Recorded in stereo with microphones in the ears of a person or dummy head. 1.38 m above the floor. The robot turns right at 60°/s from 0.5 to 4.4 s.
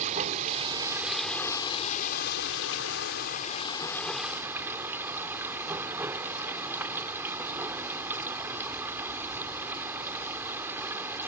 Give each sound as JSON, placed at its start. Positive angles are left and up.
{"t": 0.0, "sound": "running water", "azimuth_deg": -45}